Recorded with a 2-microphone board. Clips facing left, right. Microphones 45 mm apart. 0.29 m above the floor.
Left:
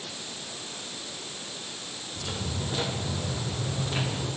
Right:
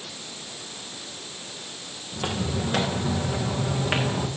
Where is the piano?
I don't hear a piano.